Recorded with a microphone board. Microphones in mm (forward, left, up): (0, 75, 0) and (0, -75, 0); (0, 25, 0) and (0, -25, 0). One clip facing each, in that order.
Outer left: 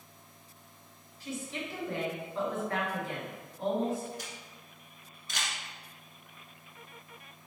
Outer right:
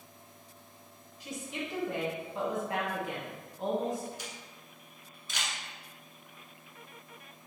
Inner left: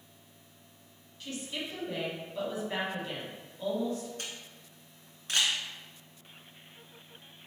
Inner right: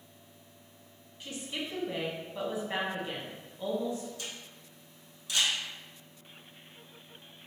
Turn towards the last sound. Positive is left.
turn(degrees=50)  # may be behind; listen again after turning